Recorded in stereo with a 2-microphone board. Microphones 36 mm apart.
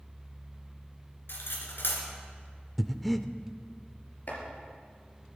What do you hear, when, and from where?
1.3 s cutlery clinking: 75° left (ahead or behind), 3 m
2.8 s breathing: centre (ahead or behind), 0.5 m
4.3 s chopping: 50° left (ahead or behind), 3.5 m